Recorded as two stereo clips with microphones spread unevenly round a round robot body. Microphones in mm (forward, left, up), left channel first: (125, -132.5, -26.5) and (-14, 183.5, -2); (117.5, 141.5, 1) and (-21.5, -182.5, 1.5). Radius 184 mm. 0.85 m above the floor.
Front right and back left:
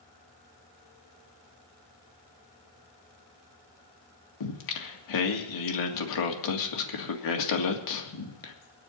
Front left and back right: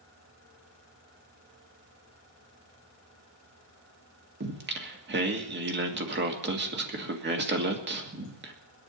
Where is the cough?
I don't hear a cough.